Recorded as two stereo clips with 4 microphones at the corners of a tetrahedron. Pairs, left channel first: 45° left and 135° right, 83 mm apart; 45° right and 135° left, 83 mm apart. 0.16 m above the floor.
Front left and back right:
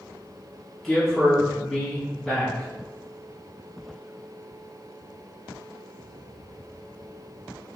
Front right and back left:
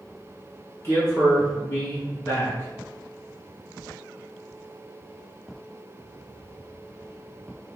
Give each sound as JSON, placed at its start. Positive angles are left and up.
{"t": 0.8, "sound": "a man speaking", "azimuth_deg": -45, "distance_m": 1.1}